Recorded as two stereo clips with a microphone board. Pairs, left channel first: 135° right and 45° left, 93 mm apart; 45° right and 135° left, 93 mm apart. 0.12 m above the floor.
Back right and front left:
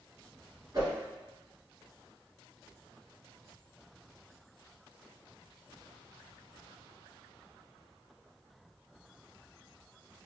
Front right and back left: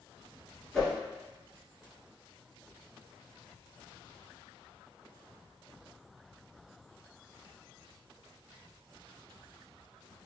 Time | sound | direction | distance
0.7 | a whoosh | 40° left | 1.0 m